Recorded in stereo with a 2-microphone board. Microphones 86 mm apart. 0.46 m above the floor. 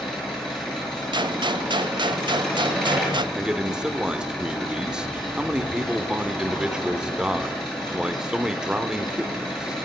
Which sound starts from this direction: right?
A gunshot, at 1.1 s.